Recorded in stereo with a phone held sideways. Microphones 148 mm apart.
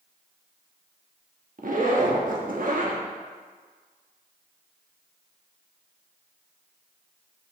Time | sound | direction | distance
1.6 | a zipper | 65° right (ahead or behind) | 1.2 m